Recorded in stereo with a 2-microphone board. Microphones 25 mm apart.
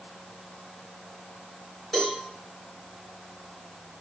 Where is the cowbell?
5° left (ahead or behind), 2.0 m.